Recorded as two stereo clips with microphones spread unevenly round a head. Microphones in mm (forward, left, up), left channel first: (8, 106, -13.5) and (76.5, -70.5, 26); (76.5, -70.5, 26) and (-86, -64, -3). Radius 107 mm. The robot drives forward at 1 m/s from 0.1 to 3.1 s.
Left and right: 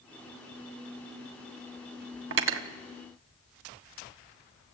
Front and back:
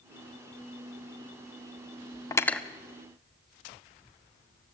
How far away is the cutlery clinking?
About 1.1 m.